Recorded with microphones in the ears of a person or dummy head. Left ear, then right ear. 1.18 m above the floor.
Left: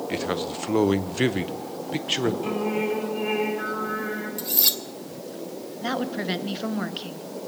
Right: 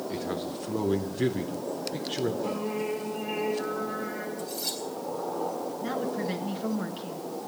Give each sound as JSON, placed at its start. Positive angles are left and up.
{"t": 0.1, "sound": "a man speaking", "side_deg": 40, "distance_m": 0.7}
{"t": 2.4, "sound": "singing", "side_deg": 30, "distance_m": 4.0}
{"t": 4.4, "sound": "cutlery clinking", "side_deg": 55, "distance_m": 1.1}
{"t": 5.8, "sound": "a woman speaking", "side_deg": 30, "distance_m": 1.0}